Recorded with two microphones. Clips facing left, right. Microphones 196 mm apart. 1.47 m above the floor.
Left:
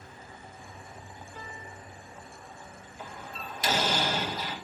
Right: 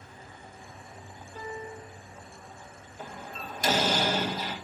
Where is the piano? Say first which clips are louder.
Right 10 dB; 35° right (ahead or behind), 1.9 m.